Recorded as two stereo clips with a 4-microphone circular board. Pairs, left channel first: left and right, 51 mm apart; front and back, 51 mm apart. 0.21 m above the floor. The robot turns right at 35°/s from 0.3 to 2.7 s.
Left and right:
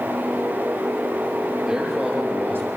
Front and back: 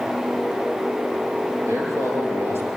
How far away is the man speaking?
About 5.5 m.